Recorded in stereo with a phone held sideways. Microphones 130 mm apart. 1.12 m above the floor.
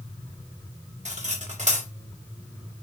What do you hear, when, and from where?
1.1 s cutlery clinking: 65° right (ahead or behind), 1.4 m